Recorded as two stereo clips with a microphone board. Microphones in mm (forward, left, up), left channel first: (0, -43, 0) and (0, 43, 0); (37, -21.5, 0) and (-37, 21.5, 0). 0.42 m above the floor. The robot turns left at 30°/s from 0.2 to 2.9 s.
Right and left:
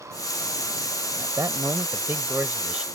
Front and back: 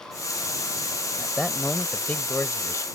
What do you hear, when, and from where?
1.2 s a man speaking: 65° left; by 2.9 s 15° left